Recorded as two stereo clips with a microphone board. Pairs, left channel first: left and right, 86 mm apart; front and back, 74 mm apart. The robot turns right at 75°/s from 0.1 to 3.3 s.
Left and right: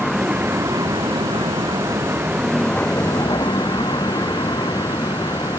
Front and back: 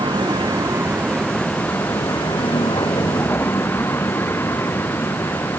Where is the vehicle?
175° left; by 5.6 s 55° left.